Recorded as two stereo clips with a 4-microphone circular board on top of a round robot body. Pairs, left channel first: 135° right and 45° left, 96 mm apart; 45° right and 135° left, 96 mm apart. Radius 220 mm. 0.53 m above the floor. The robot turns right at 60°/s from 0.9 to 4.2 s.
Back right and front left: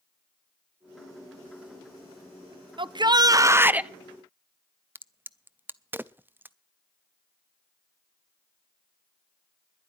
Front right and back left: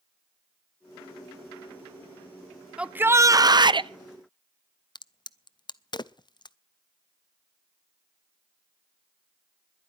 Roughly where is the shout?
Ahead left.